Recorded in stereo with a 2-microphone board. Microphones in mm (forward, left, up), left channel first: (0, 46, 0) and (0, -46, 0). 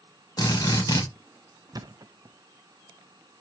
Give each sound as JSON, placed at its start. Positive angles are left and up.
{"t": 0.4, "sound": "a drill", "side_deg": 40, "distance_m": 3.0}
{"t": 1.7, "sound": "a thud", "side_deg": -45, "distance_m": 0.6}